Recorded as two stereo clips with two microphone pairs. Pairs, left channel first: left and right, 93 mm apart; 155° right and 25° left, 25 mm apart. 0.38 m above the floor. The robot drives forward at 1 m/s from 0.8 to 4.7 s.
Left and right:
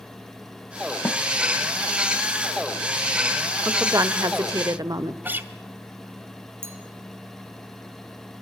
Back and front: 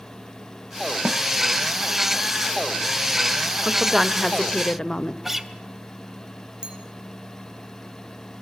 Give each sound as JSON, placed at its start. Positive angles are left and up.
{"t": 1.1, "sound": "a snare drum", "azimuth_deg": 25, "distance_m": 1.0}
{"t": 3.6, "sound": "a woman speaking", "azimuth_deg": -40, "distance_m": 1.4}
{"t": 5.2, "sound": "a guitar", "azimuth_deg": -45, "distance_m": 1.5}
{"t": 6.6, "sound": "a clink", "azimuth_deg": -25, "distance_m": 4.0}